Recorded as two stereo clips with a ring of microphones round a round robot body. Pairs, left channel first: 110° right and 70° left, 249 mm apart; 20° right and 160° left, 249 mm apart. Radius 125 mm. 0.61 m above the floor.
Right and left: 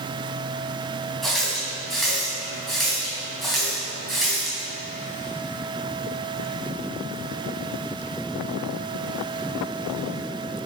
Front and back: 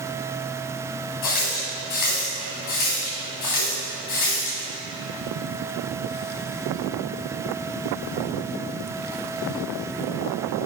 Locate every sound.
1.2 s a running tap: 25° right, 3 m